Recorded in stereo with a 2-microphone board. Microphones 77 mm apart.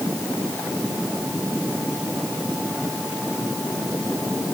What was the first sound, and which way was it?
Only background noise.